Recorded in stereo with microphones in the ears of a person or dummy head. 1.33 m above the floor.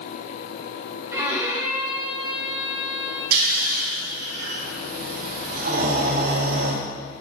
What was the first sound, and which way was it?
A violin, 20° right (ahead or behind).